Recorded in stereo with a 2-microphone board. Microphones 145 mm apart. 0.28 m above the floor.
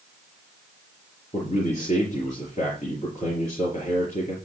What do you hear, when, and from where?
1.3 s a man speaking: 55° left (ahead or behind), 4.5 m